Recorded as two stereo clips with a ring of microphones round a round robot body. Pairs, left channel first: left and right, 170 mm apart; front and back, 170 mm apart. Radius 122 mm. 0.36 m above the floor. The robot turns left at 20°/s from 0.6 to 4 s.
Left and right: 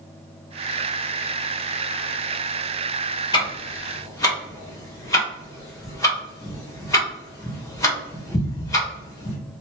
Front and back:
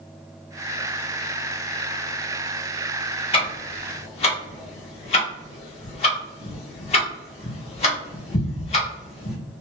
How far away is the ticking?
About 1.2 m.